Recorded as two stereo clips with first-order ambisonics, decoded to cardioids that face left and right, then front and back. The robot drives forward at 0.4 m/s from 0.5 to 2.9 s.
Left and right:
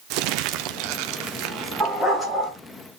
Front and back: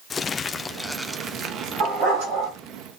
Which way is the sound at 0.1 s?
70° right.